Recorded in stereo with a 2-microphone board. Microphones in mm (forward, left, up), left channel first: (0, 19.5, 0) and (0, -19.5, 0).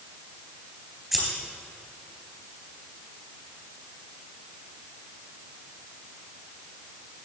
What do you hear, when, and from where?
1.1 s scissors: 5° right (ahead or behind), 3 m